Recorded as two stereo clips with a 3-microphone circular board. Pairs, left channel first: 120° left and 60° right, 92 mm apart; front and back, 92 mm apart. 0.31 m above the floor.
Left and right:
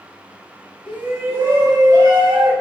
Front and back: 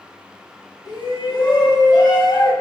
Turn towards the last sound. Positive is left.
turn(degrees=-25)